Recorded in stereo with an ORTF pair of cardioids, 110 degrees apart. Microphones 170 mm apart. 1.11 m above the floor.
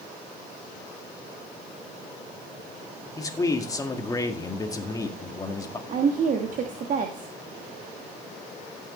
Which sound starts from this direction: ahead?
A man speaking, at 3.2 s.